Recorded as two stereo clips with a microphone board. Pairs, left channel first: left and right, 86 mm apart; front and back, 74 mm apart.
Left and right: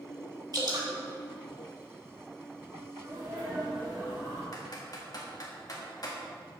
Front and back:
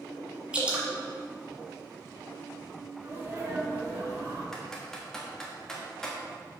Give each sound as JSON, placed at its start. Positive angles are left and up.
{"t": 0.5, "sound": "dripping", "azimuth_deg": -110, "distance_m": 1.7}
{"t": 3.0, "sound": "a sneeze", "azimuth_deg": -145, "distance_m": 2.5}
{"t": 4.5, "sound": "typing on a keyboard", "azimuth_deg": 80, "distance_m": 1.6}